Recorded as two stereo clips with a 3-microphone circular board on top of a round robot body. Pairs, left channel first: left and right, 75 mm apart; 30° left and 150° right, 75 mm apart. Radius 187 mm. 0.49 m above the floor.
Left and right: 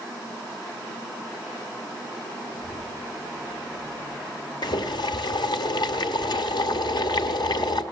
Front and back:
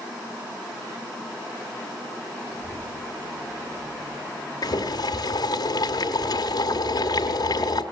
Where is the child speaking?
150° left, 7 m.